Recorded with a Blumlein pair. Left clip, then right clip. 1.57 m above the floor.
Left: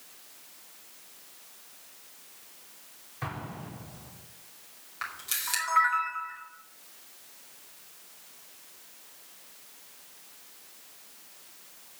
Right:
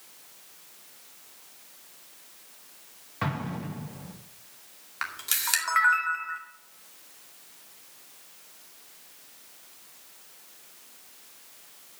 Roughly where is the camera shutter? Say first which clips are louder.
Right 4 dB; right.